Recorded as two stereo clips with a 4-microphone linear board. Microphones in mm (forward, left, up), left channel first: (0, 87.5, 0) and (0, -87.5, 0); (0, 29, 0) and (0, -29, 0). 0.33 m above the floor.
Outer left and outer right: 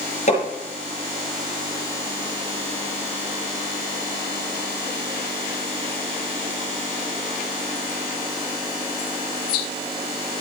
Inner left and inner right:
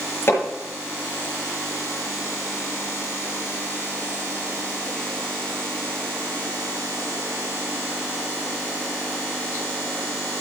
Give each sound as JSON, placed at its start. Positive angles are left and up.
{"t": 0.3, "sound": "hammering", "side_deg": 45, "distance_m": 5.0}